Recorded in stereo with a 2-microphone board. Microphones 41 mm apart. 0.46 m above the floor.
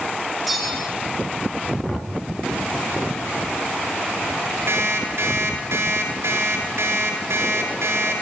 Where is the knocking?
40° left (ahead or behind), 3.5 m.